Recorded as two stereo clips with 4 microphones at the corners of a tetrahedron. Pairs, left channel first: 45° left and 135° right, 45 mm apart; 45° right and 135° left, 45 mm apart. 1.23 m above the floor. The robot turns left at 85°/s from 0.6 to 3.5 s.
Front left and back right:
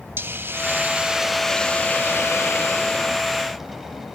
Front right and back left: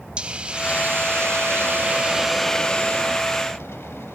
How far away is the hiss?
About 0.7 m.